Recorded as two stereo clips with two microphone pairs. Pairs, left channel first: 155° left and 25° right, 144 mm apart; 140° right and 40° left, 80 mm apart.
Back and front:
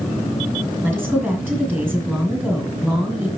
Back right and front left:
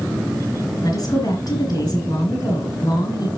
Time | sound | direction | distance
0.8 | a woman speaking | 100° right | 3.5 m